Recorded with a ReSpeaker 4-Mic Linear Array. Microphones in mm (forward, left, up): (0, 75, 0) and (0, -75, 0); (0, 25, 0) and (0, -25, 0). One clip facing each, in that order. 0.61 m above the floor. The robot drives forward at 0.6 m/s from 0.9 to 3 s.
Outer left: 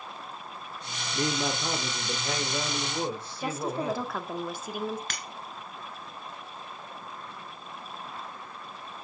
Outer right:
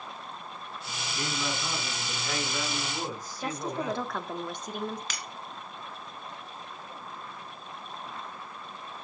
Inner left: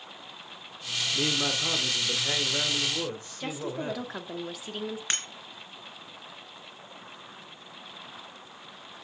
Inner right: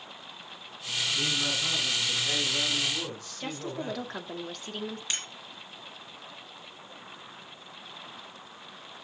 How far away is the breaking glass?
About 1.9 m.